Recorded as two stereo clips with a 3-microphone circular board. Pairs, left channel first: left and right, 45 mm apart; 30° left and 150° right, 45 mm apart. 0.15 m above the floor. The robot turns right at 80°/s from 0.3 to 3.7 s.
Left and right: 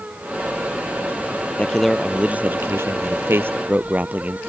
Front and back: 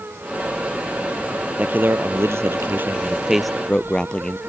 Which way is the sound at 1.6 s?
150° left.